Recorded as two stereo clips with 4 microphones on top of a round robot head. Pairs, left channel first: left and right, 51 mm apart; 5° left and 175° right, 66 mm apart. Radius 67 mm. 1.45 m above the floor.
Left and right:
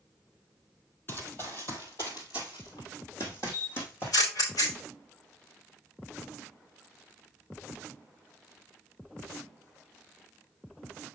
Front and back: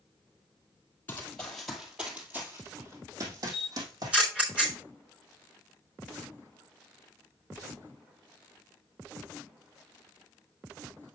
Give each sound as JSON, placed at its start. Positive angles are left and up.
{"t": 1.1, "sound": "running footsteps", "azimuth_deg": 60, "distance_m": 1.7}
{"t": 3.5, "sound": "a camera shutter", "azimuth_deg": 110, "distance_m": 4.0}